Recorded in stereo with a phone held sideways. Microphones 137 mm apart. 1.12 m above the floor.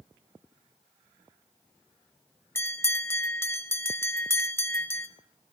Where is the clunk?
No clunk in this recording.